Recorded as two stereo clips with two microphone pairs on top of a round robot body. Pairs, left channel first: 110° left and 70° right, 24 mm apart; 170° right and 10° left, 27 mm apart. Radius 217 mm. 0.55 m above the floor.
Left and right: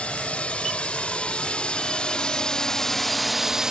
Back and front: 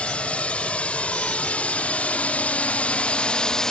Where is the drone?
145° left; by 3.7 s 105° right.